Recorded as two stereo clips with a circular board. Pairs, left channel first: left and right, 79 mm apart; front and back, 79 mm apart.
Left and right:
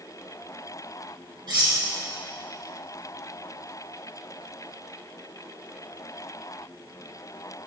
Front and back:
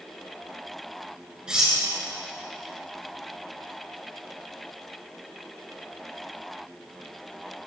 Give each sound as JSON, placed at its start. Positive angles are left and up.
{"t": 1.5, "sound": "cutlery clinking", "azimuth_deg": -100, "distance_m": 2.5}